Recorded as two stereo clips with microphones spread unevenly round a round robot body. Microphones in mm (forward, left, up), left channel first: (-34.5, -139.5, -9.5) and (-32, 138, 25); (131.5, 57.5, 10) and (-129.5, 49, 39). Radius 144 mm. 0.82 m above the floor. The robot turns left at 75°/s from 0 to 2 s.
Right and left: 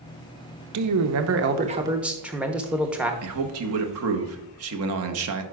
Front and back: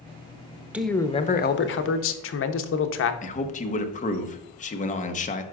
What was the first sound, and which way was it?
A man speaking, 95° left.